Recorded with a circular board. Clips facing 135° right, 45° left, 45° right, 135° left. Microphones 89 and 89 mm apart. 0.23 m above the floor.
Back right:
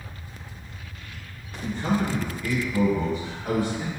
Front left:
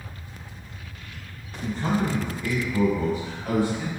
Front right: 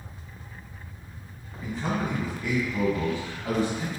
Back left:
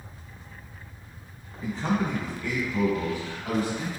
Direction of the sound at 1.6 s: 45° left.